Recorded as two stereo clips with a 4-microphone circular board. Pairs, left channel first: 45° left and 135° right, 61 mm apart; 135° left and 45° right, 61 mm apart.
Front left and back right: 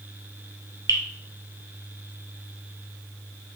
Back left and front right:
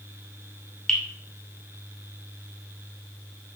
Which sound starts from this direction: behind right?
Dripping, at 0.9 s.